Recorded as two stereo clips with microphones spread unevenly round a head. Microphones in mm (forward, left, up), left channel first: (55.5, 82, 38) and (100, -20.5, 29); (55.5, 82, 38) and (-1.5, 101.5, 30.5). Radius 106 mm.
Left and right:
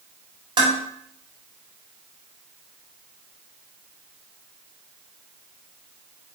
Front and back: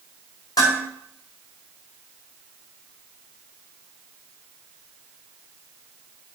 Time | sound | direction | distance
0.6 | dishes clattering | 20° right | 4.5 m